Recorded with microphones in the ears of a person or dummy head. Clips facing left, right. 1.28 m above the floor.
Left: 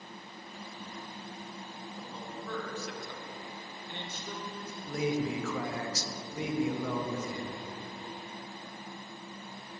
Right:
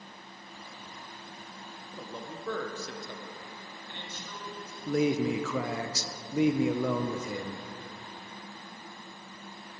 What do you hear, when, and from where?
1.9 s a man speaking: 65° right (ahead or behind), 1.3 m; by 4.8 s 40° left (ahead or behind), 1.7 m
4.9 s a man speaking: 60° right (ahead or behind), 0.7 m